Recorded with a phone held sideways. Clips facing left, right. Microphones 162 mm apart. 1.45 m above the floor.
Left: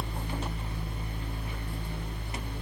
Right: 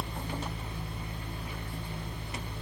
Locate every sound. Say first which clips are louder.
0.0 s a fan: left 1 dB; 50° left (ahead or behind), 1.3 m